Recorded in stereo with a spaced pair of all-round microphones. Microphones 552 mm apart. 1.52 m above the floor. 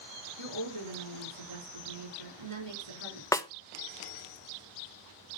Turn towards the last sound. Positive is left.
turn(degrees=5)  # may be behind; listen again after turning